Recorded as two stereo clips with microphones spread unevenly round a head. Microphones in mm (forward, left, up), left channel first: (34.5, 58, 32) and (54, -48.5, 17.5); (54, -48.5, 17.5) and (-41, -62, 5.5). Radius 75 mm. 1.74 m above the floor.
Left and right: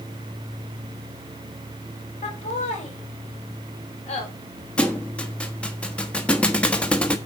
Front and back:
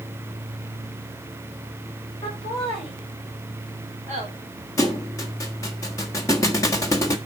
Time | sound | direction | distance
2.2 | laughter | 90° left | 6.5 m
4.8 | a thud | 35° left | 1.4 m